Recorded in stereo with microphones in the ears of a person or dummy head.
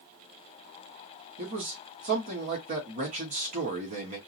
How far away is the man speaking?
About 1.2 m.